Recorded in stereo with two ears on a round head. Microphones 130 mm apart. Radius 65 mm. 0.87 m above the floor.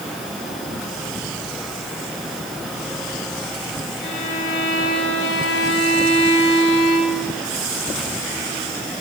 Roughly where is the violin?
Left.